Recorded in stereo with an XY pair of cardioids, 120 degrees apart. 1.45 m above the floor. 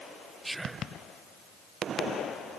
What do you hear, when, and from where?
0.4 s whispering: 10° right, 0.9 m